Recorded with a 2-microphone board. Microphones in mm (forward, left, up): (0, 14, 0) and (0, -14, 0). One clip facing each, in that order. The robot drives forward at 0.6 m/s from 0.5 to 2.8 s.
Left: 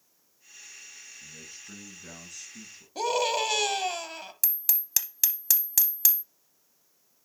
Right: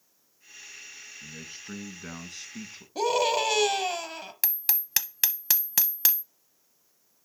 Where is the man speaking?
30° right (ahead or behind), 2 m; by 2.9 s 45° right (ahead or behind), 1.6 m.